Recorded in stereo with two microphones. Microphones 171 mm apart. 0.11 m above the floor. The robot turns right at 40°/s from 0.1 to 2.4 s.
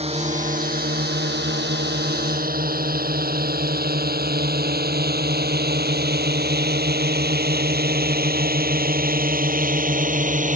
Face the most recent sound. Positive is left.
turn(degrees=-45)  # may be behind; listen again after turning